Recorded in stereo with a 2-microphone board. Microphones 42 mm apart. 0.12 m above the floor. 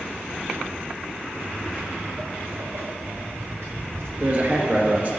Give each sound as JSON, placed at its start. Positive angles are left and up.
{"t": 1.3, "sound": "footsteps", "side_deg": -45, "distance_m": 1.7}
{"t": 4.2, "sound": "a man speaking", "side_deg": -40, "distance_m": 2.0}